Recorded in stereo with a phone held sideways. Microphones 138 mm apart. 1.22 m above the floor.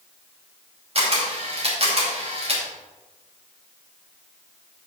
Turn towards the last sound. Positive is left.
turn(degrees=-45)  # may be behind; listen again after turning